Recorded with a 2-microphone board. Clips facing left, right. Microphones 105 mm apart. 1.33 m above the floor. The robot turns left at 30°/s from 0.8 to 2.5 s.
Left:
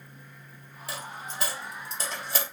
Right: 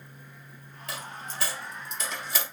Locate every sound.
0.9 s a dropped coin: 5° left (ahead or behind), 2.5 m; by 2.4 s 45° left (ahead or behind), 2.5 m